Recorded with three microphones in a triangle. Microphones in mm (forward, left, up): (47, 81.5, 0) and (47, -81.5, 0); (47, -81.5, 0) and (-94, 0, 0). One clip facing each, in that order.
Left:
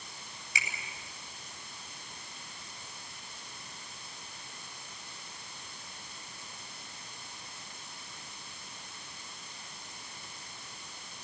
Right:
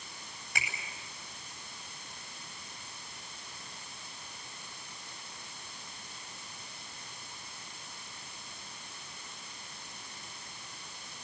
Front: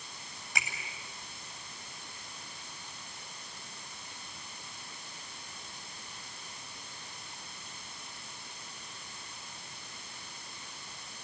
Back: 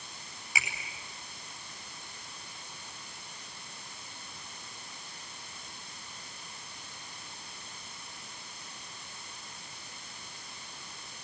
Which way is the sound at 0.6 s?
125° right.